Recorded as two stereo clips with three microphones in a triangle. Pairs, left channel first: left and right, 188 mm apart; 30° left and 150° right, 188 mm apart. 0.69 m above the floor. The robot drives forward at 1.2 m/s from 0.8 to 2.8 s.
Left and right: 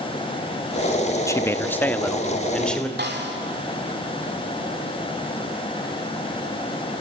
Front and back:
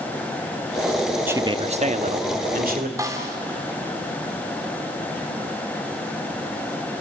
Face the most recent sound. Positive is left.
turn(degrees=-80)